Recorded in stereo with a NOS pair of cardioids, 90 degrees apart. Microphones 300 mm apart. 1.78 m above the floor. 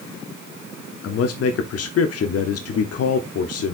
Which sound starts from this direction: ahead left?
A man speaking, at 1.0 s.